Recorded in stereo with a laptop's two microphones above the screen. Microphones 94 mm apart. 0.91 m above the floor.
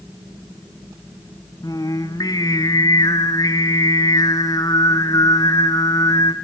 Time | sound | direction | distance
1.6 | singing | 40° left (ahead or behind) | 2 m